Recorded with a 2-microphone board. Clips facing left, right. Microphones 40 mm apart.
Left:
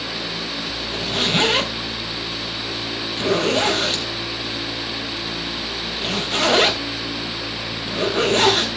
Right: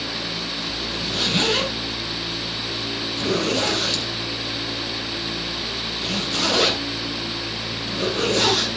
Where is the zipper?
45° left (ahead or behind), 3.5 m.